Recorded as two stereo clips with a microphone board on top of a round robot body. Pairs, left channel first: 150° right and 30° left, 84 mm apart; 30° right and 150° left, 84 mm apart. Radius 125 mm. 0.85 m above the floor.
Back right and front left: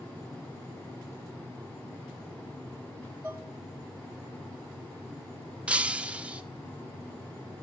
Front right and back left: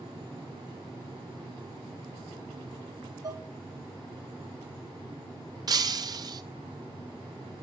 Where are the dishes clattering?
105° left, 1.3 m.